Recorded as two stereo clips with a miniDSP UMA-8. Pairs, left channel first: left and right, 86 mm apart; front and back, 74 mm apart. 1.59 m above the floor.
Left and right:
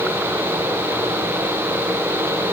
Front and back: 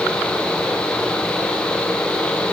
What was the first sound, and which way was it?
Only background noise.